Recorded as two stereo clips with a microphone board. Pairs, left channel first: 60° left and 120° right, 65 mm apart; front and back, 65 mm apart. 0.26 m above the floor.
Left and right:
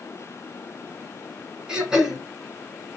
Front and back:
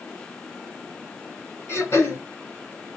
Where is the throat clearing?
40° right, 2 m.